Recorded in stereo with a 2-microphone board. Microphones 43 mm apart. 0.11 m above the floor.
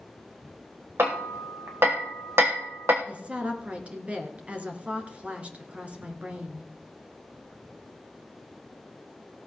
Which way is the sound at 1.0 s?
70° right (ahead or behind).